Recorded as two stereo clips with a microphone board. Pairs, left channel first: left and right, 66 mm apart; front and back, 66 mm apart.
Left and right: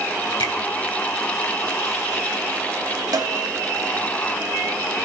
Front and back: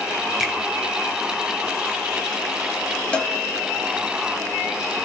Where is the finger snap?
90° left, 3.5 m.